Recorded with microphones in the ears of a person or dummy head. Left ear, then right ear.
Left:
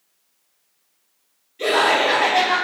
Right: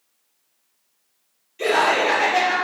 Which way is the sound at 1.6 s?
40° right (ahead or behind).